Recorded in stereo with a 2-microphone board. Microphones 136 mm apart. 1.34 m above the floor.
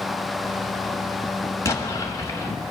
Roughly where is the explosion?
Left.